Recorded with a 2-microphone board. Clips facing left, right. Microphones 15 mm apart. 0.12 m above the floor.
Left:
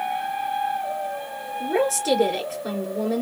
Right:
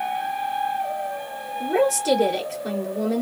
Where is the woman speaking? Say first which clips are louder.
Right 2 dB; 10° left (ahead or behind), 2 m.